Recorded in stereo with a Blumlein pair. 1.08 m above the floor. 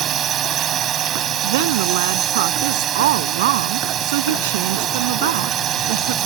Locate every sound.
0.0 s a drone: 30° right
1.4 s a woman speaking: 55° right